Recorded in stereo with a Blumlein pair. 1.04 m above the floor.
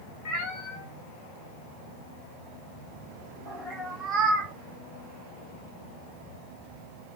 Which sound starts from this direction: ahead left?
A cat meowing, at 0.2 s.